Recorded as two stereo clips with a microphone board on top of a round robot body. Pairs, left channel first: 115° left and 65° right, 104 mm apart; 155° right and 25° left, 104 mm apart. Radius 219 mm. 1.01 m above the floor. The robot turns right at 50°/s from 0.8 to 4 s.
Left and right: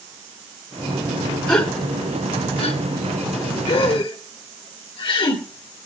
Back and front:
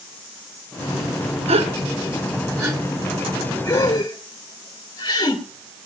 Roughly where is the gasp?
Ahead left.